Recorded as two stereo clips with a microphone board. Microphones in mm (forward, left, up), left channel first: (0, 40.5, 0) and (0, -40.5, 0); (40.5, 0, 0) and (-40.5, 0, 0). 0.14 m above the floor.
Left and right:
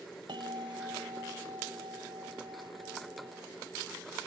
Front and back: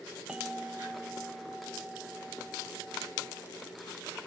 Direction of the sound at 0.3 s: 100° right.